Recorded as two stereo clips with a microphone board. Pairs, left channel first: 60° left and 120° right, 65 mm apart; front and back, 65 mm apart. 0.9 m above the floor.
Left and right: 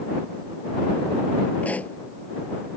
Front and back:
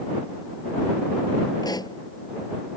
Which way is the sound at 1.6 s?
10° right.